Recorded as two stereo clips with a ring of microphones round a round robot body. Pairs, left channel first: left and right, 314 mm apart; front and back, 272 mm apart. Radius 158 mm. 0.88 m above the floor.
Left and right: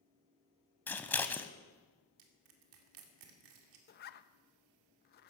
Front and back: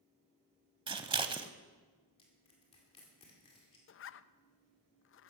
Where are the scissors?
160° left, 0.7 m.